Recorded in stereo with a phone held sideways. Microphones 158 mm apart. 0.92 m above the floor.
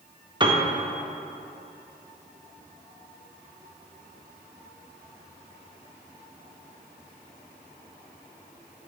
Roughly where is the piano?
Right.